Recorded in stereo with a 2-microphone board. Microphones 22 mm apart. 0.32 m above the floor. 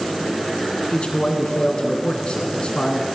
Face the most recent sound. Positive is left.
turn(degrees=45)  # may be behind; listen again after turning